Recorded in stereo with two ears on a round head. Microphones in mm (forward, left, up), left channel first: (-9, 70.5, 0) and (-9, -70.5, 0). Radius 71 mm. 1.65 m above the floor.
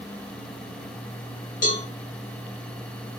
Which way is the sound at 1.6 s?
55° left (ahead or behind).